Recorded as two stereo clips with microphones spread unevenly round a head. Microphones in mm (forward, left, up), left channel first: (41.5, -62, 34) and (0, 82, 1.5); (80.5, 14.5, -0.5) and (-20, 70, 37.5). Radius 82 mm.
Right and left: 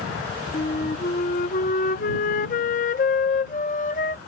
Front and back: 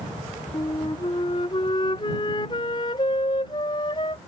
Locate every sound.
0.5 s a flute: 100° right